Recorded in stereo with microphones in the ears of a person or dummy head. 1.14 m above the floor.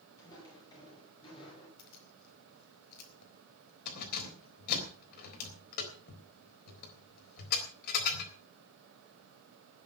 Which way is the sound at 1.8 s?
55° left (ahead or behind).